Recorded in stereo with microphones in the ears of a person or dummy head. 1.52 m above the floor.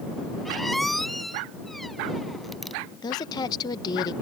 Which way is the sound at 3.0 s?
25° left (ahead or behind).